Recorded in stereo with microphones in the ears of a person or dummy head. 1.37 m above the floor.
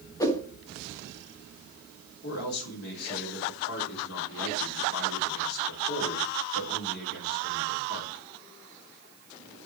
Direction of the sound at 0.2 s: 20° left (ahead or behind).